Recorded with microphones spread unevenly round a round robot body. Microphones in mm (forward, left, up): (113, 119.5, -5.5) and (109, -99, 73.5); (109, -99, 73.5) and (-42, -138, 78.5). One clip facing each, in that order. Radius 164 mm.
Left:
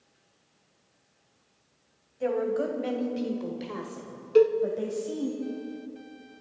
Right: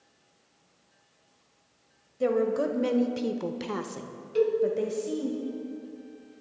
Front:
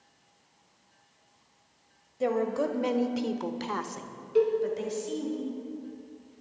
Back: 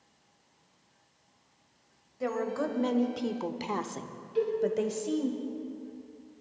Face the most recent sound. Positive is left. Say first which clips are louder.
# left 5 dB, front 5 dB
turn(degrees=70)